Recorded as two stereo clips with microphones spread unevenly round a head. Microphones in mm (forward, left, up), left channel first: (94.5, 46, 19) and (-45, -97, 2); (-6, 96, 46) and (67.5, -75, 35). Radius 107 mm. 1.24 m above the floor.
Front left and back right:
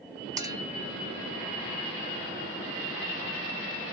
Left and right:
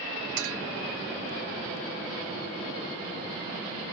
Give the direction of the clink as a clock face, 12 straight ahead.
2 o'clock.